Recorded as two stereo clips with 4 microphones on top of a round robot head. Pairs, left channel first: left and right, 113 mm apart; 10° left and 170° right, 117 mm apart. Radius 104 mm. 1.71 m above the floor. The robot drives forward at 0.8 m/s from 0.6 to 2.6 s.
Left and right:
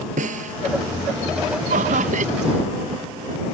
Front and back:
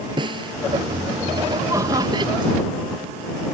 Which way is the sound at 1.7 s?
100° right.